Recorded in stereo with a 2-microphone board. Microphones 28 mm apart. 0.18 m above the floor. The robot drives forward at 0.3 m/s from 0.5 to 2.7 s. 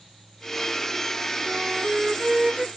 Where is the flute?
15° right (ahead or behind).